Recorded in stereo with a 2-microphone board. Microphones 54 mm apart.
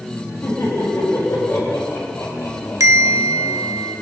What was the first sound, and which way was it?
Laughter, 65° left (ahead or behind).